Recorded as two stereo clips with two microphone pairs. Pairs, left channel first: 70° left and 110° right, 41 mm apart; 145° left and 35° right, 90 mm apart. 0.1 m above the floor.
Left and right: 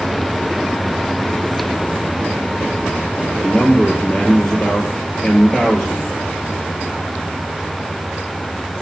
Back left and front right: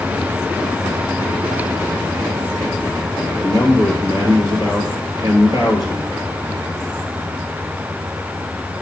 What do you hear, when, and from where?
3.4 s a man speaking: 5° right, 2.5 m